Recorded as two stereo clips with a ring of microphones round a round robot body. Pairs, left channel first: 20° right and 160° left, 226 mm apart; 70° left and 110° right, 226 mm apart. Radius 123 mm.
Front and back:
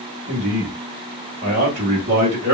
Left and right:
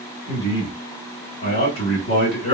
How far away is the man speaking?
About 2.5 m.